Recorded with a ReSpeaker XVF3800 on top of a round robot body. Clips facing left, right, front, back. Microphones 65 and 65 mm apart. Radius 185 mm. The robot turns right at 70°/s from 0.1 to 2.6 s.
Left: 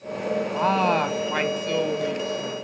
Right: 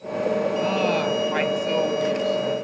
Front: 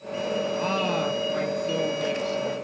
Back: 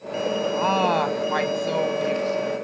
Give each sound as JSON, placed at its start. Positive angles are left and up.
{"t": 0.5, "sound": "a woman speaking", "azimuth_deg": 115, "distance_m": 2.0}